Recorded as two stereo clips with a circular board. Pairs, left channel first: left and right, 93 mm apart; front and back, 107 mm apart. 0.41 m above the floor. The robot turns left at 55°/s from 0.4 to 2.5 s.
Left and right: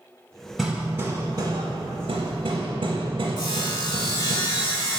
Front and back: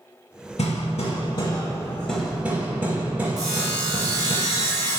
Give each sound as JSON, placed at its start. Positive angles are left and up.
{"t": 0.6, "sound": "hammering", "azimuth_deg": 0, "distance_m": 0.6}
{"t": 3.4, "sound": "sawing", "azimuth_deg": 125, "distance_m": 1.0}